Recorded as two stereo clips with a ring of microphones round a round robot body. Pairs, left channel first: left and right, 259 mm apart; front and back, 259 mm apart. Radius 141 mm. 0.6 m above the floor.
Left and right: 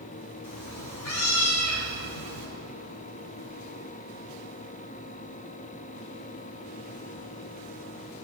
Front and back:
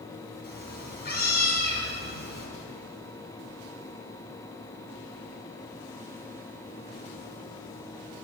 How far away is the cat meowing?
About 3 m.